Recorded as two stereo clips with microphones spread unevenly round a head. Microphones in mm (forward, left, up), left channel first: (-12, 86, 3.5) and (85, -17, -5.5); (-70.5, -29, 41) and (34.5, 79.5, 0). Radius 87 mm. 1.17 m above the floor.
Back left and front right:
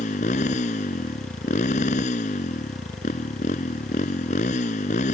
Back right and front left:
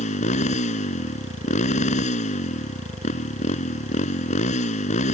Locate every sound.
0.0 s a motorcycle: 175° right